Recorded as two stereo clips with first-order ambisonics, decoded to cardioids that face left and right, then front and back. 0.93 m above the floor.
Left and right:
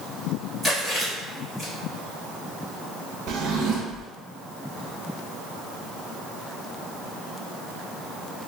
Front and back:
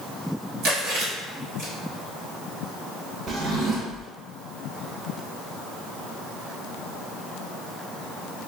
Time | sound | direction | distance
0.6 | chewing | 175° left | 1.5 m
3.3 | a drawer | 120° right | 0.6 m